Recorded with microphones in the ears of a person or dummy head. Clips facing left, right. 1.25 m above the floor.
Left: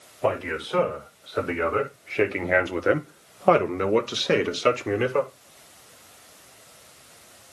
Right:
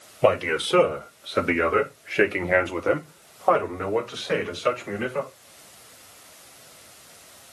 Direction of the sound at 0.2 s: 50° right (ahead or behind).